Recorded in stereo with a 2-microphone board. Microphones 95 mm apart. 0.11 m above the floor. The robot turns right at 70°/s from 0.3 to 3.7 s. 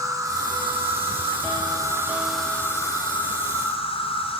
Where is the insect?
145° right, 1.3 m; by 4.4 s 95° left, 1.3 m.